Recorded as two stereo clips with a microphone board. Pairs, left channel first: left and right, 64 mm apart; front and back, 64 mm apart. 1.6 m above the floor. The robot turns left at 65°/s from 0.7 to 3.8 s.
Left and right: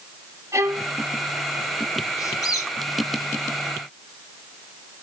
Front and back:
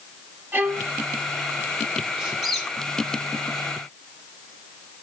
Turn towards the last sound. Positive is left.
turn(degrees=5)